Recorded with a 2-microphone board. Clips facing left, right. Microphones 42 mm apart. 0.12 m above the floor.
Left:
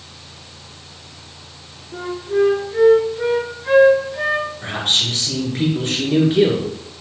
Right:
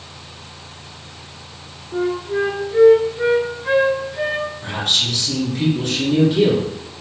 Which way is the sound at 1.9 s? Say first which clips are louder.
Even; 10° right (ahead or behind).